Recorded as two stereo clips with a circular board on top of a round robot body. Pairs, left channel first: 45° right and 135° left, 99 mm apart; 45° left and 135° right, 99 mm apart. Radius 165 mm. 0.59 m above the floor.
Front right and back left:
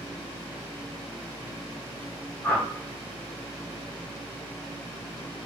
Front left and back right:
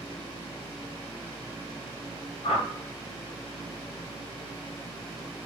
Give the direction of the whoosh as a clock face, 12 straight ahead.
11 o'clock.